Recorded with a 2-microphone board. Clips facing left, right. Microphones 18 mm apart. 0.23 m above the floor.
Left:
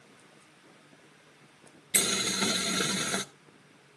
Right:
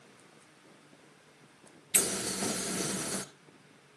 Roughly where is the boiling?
Left.